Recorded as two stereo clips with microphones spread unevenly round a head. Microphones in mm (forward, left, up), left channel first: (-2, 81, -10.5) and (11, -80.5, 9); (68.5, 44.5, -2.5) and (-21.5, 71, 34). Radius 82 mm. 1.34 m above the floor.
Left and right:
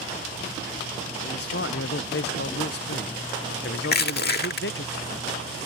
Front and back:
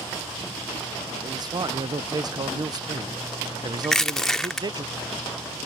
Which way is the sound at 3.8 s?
85° left.